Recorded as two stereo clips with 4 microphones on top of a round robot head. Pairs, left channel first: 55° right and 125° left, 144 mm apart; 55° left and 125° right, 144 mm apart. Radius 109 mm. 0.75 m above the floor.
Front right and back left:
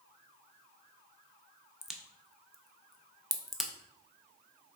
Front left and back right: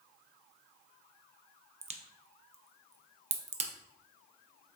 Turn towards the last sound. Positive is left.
turn(degrees=-145)